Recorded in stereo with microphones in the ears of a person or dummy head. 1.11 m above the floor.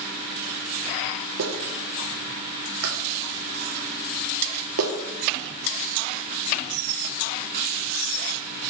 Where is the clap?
85° right, 2 m.